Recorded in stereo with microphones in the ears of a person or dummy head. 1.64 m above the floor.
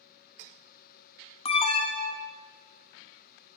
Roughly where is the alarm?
Left.